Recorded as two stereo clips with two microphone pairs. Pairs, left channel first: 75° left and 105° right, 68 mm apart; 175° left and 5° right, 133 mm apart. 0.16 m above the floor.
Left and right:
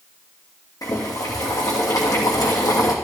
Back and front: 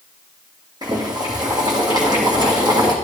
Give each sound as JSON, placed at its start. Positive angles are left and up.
{"t": 0.8, "sound": "boiling", "azimuth_deg": 50, "distance_m": 2.5}